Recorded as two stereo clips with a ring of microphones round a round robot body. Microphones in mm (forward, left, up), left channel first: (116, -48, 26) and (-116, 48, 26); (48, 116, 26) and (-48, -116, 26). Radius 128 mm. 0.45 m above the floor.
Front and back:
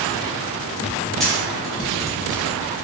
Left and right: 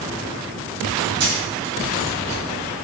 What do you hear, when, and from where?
1.2 s a camera shutter: 110° right, 3.5 m